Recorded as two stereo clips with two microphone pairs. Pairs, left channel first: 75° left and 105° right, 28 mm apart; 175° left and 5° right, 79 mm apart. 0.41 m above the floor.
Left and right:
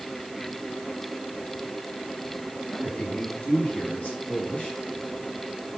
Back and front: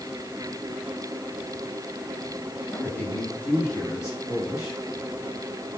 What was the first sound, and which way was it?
A man speaking, 105° left.